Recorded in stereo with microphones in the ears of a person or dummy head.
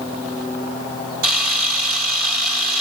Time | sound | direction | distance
1.2 | a camera shutter | 55° right (ahead or behind) | 5.5 m